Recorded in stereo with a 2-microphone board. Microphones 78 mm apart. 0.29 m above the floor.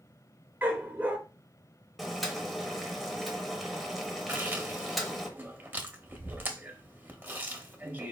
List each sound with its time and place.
0.6 s a dog barking: 25° right (ahead or behind), 0.9 m
2.0 s boiling: centre (ahead or behind), 0.7 m
4.3 s chewing: 25° right (ahead or behind), 0.5 m